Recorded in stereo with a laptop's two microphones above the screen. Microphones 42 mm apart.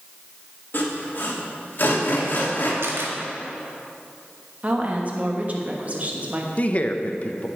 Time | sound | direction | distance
0.7 | sawing | 50° left (ahead or behind) | 2.5 m
2.8 | a camera shutter | 80° right | 1.6 m
4.6 | a woman speaking | 35° right (ahead or behind) | 1.2 m
6.6 | a man speaking | 35° left (ahead or behind) | 0.7 m